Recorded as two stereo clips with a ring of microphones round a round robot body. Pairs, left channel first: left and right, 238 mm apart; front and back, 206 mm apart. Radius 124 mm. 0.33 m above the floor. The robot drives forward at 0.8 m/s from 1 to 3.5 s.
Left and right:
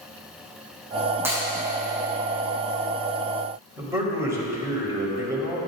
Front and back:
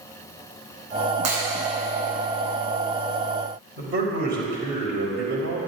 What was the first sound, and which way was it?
Breaking glass, 170° right.